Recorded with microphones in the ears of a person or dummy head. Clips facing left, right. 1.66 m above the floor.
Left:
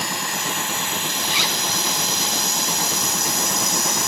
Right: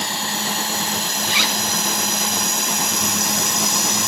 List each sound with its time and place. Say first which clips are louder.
0.0 s a drone: right 2 dB; 25° right (ahead or behind); by 4.1 s 60° right (ahead or behind)
1.2 s a zipper: right 2 dB; 55° right (ahead or behind)